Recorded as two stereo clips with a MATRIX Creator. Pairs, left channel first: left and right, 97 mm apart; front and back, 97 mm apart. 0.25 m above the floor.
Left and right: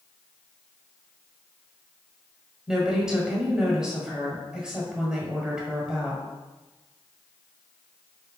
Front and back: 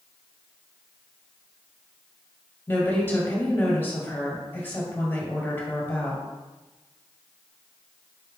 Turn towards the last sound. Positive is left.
turn(degrees=-20)